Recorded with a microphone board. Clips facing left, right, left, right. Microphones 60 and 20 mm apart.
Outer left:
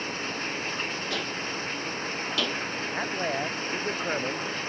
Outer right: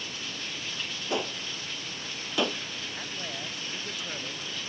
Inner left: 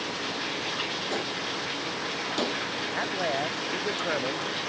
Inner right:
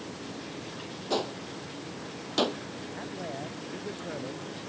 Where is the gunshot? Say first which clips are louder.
Outer left 1 dB, inner left 2 dB; 20° right (ahead or behind).